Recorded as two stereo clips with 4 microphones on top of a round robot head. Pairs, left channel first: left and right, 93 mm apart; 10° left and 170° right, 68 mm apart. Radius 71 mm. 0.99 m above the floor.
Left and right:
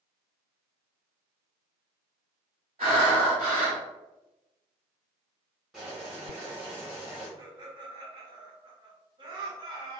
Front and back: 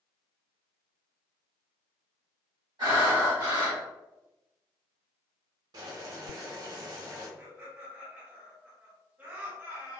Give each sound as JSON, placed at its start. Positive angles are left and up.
{"t": 2.8, "sound": "breathing", "azimuth_deg": -125, "distance_m": 1.5}
{"t": 5.7, "sound": "boiling", "azimuth_deg": -175, "distance_m": 1.1}
{"t": 7.4, "sound": "laughter", "azimuth_deg": -110, "distance_m": 1.3}